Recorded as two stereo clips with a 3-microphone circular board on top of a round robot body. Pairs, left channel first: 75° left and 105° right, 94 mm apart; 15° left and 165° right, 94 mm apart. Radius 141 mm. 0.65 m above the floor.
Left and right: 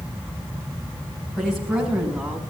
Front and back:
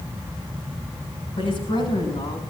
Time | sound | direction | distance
1.4 | a woman speaking | 10° right | 5.5 m